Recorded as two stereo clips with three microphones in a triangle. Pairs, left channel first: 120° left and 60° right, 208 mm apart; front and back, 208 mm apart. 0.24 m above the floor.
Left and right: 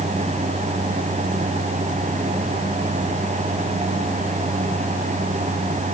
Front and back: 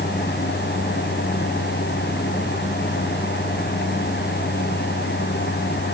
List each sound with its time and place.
Only background noise.